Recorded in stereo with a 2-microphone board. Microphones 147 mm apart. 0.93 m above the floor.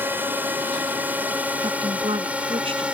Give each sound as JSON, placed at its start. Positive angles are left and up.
{"t": 0.0, "sound": "a drone", "side_deg": -15}
{"t": 1.6, "sound": "a woman speaking", "side_deg": -40}